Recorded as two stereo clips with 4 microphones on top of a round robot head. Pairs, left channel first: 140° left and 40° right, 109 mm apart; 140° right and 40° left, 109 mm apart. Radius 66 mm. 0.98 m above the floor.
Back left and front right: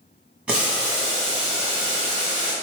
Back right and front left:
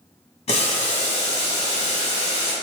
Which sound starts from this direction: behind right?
Boiling, at 0.5 s.